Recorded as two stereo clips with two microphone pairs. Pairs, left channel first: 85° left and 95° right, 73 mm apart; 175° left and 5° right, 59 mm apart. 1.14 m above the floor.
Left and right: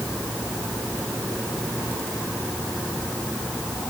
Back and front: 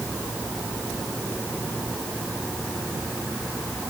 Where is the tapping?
I don't hear tapping.